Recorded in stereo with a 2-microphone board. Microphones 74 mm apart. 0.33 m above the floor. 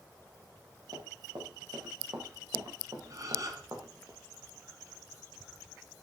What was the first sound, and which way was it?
Running footsteps, 80° right.